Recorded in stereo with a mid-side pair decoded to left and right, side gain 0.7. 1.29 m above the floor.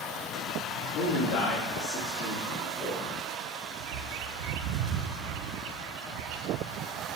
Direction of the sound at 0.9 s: 70° left.